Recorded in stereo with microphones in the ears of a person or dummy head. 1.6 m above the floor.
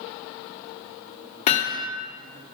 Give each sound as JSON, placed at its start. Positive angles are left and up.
{"t": 1.5, "sound": "hammering", "side_deg": 50, "distance_m": 1.8}